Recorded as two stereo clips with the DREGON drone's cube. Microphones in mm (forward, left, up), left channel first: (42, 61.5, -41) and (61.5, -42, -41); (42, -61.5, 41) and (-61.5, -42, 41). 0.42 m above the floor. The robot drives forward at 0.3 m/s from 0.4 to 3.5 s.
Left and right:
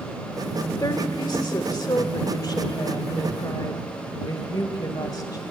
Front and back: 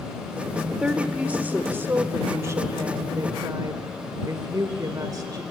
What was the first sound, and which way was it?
A woman speaking, 90° left.